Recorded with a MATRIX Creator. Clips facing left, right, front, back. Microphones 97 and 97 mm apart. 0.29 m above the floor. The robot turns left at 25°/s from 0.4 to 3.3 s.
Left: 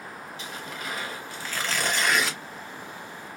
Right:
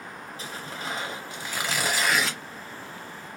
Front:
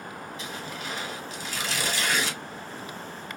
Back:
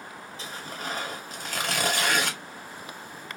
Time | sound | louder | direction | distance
0.4 | tearing paper | right 1 dB, back 2 dB | 135° right | 1.0 m